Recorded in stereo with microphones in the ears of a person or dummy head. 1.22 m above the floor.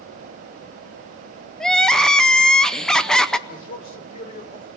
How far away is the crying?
About 0.6 m.